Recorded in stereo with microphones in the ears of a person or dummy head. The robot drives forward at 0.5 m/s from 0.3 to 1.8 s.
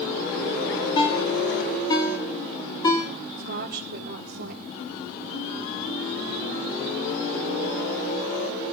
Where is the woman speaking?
60° right (ahead or behind), 2 m.